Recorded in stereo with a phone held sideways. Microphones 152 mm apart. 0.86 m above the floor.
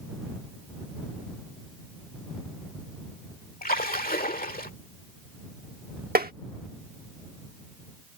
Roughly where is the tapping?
Right.